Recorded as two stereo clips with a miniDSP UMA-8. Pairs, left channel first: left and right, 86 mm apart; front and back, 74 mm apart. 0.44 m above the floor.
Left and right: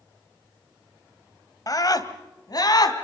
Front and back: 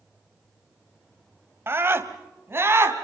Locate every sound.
1.7 s a scream: 125° left, 1.9 m